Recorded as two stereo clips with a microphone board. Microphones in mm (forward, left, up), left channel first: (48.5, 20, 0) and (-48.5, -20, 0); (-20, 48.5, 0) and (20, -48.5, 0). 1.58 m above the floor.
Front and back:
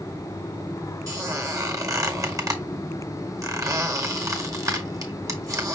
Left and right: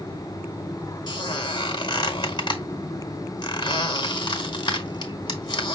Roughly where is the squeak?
Behind left.